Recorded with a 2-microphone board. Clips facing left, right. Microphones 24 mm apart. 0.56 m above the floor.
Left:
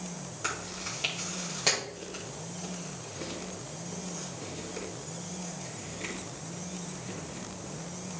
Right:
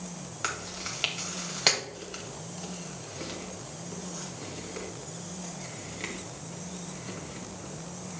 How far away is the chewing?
About 2 m.